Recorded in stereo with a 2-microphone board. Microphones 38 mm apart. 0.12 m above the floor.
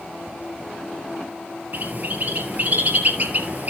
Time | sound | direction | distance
1.7 | a bird | 45° right (ahead or behind) | 2 m